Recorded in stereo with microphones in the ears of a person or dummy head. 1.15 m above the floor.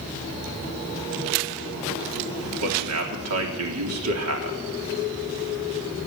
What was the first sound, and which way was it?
A man speaking, 80° right.